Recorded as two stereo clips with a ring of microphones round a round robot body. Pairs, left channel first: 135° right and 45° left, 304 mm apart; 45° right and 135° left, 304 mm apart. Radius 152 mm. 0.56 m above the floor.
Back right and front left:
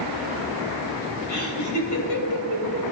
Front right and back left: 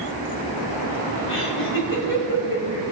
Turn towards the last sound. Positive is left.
turn(degrees=-100)